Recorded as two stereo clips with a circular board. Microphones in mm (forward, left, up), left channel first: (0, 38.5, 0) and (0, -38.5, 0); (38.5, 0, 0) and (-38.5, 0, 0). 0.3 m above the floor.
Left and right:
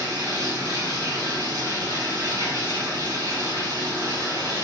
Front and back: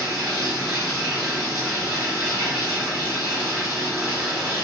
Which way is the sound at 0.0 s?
100° right.